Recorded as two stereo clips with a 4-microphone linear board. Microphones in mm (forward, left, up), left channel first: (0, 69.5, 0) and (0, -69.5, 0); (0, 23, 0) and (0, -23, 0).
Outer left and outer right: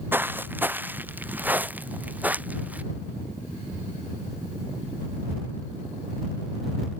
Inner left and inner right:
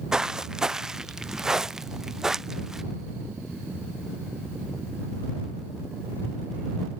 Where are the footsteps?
15° right (ahead or behind); by 2.8 s 10° right (ahead or behind).